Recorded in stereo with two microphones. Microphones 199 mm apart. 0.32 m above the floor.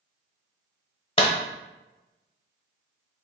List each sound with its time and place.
1.2 s a clap: 25° left (ahead or behind), 0.8 m